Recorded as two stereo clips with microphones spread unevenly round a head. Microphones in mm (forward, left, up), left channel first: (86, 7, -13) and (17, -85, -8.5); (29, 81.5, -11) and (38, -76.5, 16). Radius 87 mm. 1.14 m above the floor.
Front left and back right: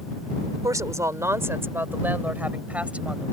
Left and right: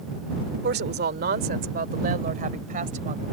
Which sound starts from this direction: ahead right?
A woman speaking, at 0.6 s.